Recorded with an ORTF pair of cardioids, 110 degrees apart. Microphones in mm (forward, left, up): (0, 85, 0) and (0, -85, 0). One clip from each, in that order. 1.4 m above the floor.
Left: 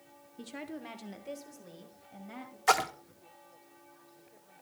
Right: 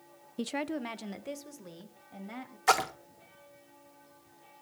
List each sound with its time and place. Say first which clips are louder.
0.4 s a woman speaking: right 8 dB; 50° right, 0.6 m; by 2.6 s 20° right, 2.5 m
2.7 s a splash: even; straight ahead, 0.8 m